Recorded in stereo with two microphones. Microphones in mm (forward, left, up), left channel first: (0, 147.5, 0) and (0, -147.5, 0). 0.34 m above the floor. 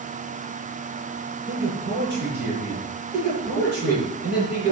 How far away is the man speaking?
About 9.5 m.